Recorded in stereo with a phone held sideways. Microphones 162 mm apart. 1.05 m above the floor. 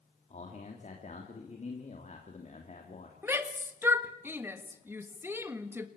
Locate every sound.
0.3 s a man speaking: 50° left (ahead or behind), 2.5 m
3.2 s a shout: 15° right (ahead or behind), 1.6 m